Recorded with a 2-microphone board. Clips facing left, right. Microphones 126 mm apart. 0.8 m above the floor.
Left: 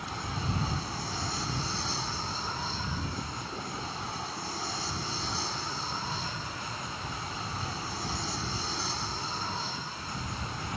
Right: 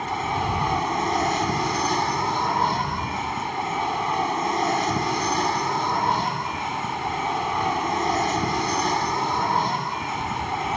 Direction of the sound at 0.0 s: 80° right.